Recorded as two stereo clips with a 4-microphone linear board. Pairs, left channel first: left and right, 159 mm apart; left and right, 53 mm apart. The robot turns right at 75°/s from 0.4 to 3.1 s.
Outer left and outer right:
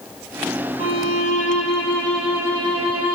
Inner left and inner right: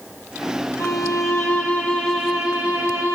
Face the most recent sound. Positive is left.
turn(degrees=-115)